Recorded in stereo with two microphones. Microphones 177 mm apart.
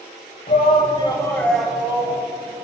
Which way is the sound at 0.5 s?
50° left (ahead or behind).